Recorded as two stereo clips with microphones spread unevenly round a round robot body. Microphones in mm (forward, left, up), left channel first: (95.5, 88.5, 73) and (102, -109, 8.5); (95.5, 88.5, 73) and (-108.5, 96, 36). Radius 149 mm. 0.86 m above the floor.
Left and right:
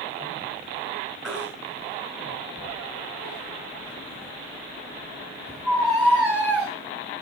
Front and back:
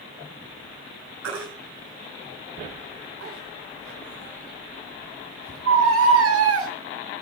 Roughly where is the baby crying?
Behind.